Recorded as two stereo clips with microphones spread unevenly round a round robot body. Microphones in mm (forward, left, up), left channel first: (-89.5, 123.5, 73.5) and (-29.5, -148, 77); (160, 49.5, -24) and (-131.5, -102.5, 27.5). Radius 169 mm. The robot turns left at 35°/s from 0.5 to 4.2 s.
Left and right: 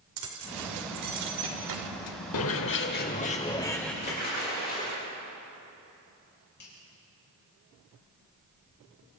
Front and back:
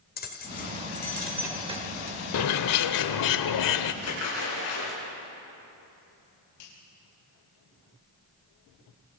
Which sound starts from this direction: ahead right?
Keys jangling, at 0.2 s.